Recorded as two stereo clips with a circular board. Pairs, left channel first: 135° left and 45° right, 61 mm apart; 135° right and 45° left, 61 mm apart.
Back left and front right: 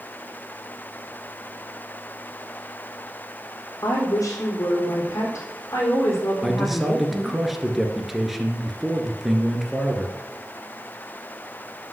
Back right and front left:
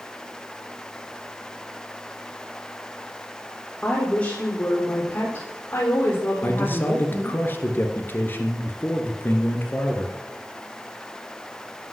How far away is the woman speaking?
About 3 m.